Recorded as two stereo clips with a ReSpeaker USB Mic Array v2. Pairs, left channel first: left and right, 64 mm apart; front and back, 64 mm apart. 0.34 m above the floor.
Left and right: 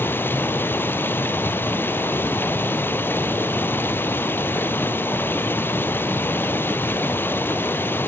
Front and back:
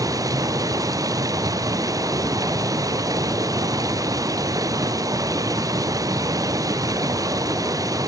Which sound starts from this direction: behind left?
Running water, at 0.0 s.